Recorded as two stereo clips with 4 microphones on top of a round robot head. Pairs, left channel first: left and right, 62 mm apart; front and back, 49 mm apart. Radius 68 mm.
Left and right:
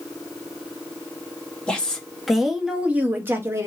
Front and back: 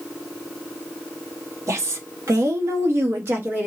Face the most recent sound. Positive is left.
turn(degrees=-130)